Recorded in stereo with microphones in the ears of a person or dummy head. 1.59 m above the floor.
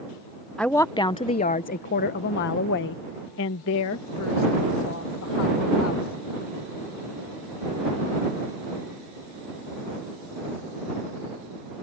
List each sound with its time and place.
0.6 s a woman speaking: 5° left (ahead or behind); by 6.2 s 85° left